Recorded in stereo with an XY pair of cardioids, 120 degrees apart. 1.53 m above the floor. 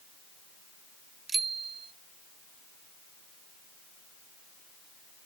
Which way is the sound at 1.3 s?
25° right.